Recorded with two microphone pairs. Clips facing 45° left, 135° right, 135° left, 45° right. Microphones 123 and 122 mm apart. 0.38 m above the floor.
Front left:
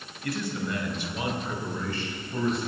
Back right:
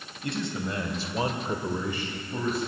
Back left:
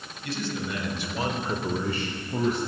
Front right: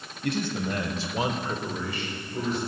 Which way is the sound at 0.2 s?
70° right.